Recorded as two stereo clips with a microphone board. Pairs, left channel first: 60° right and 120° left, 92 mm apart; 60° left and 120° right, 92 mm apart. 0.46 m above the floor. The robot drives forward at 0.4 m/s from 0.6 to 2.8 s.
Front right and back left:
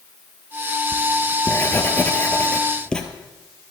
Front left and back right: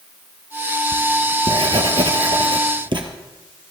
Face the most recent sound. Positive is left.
turn(degrees=-140)